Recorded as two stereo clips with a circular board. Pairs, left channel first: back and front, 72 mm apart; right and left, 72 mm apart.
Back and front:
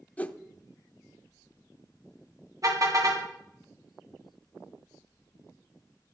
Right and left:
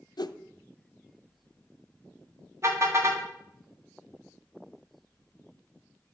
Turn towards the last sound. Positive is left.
turn(degrees=40)